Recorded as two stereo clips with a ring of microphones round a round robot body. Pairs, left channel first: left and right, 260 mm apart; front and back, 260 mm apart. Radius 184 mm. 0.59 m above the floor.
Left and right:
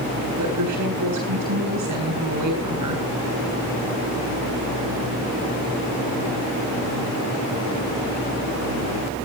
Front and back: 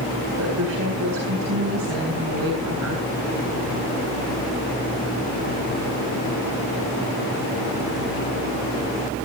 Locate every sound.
0.4 s a woman speaking: 125° right, 7 m